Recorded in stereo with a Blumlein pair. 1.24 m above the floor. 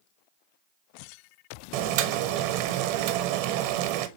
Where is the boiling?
45° right, 0.7 m.